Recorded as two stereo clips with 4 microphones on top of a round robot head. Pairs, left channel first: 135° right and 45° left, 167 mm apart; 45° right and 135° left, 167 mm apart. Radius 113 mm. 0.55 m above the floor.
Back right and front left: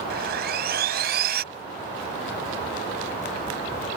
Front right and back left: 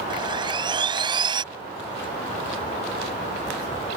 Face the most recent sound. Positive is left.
turn(degrees=75)